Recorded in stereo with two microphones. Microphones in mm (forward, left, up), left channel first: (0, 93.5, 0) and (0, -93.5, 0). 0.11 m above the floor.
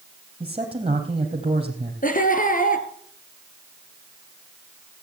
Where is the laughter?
45° left (ahead or behind), 2 m.